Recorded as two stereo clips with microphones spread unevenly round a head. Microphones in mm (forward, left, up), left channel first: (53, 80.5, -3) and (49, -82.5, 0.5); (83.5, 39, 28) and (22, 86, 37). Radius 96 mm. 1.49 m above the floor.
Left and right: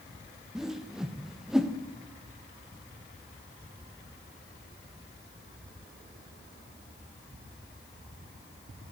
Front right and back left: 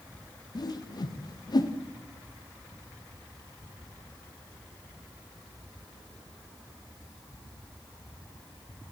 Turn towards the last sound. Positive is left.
turn(degrees=-5)